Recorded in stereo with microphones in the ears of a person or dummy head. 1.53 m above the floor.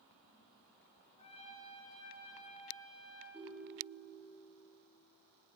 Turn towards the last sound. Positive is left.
turn(degrees=-15)  # may be behind; listen again after turning